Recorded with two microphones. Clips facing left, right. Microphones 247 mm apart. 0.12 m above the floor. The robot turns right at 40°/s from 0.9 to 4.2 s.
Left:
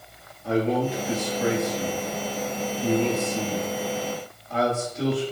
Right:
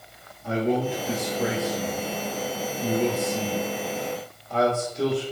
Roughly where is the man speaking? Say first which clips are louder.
Left 1 dB; right.